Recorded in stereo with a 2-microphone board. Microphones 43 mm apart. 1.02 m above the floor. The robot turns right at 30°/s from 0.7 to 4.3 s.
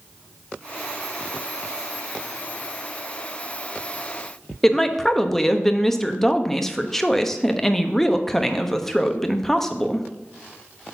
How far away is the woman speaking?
About 0.9 m.